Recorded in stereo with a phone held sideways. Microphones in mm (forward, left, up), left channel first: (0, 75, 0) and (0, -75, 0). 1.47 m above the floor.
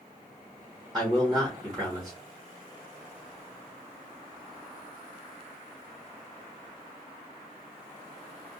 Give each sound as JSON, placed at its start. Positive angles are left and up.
{"t": 0.9, "sound": "a man speaking", "side_deg": 5, "distance_m": 1.2}